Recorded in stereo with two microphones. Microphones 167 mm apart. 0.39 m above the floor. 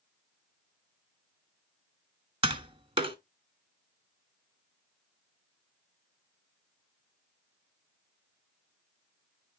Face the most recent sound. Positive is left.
turn(degrees=-35)  # may be behind; listen again after turning